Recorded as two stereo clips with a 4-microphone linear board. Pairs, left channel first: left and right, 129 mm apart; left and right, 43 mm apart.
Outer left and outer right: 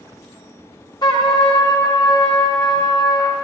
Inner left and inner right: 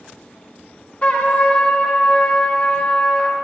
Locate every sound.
1.0 s a trumpet: 30° left (ahead or behind), 1.4 m